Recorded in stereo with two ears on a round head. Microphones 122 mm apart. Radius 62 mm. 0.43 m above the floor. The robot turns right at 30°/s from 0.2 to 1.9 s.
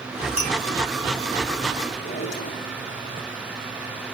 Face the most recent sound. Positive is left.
turn(degrees=60)  # may be behind; listen again after turning